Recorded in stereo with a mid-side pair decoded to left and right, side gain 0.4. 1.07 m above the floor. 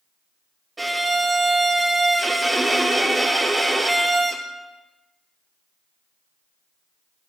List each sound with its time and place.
0.8 s a violin: 20° right, 1.3 m